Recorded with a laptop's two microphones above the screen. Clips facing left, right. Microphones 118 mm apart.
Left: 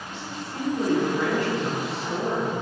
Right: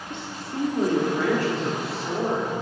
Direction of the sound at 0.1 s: 60° right (ahead or behind).